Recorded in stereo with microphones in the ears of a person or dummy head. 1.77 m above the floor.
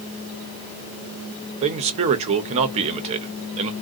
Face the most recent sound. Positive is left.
turn(degrees=-40)  # may be behind; listen again after turning